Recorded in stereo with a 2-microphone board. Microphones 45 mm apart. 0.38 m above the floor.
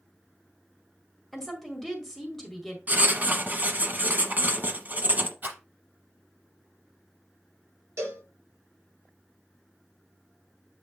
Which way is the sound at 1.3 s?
5° left (ahead or behind).